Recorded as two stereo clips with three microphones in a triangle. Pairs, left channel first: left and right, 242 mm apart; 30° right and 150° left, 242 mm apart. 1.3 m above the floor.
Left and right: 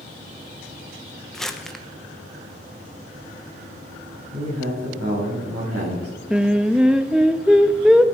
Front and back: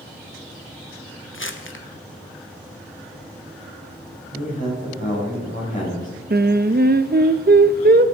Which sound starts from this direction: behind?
Singing, at 6.3 s.